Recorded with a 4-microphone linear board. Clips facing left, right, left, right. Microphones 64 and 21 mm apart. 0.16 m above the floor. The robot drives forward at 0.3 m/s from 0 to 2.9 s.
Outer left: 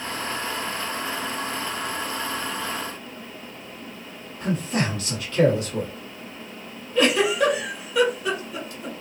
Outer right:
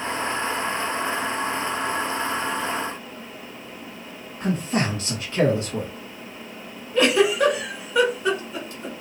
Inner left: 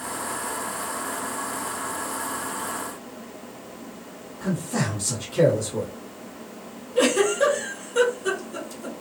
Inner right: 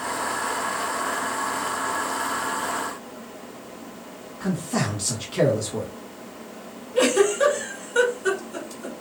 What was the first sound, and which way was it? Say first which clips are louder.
A man speaking: outer right 1 dB, inner right 1 dB; 30° right (ahead or behind).